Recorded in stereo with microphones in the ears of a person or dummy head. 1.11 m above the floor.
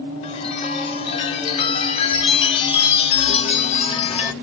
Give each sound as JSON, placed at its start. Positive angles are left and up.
{"t": 0.2, "sound": "a chime", "side_deg": 30, "distance_m": 0.6}